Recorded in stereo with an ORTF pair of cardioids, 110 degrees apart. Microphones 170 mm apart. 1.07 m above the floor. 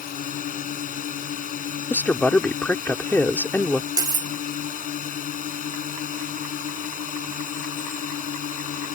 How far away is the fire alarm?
No fire alarm in this recording.